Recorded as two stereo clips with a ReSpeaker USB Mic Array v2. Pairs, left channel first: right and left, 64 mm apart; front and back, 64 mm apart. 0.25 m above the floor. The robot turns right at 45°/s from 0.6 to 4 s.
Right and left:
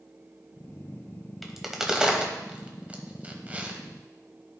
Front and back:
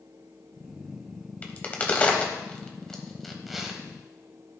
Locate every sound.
1.4 s a crack: straight ahead, 1.2 m; by 3.8 s 110° left, 1.2 m